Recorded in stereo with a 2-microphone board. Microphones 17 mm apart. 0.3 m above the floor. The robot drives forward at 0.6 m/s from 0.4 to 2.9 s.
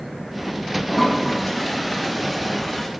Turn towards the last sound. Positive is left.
turn(degrees=10)  # may be behind; listen again after turning